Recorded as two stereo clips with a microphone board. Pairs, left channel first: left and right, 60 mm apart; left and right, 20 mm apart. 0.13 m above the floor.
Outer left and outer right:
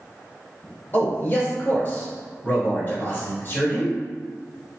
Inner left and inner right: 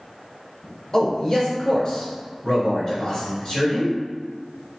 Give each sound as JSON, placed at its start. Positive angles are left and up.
{"t": 0.9, "sound": "a man speaking", "side_deg": 35, "distance_m": 1.6}